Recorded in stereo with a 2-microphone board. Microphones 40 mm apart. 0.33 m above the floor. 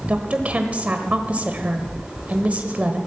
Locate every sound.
0.1 s a woman speaking: 35° right (ahead or behind), 1.1 m